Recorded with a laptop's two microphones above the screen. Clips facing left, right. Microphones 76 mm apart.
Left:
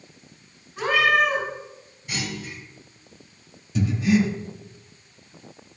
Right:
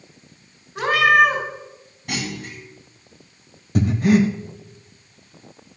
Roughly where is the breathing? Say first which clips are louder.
Right 4 dB; right.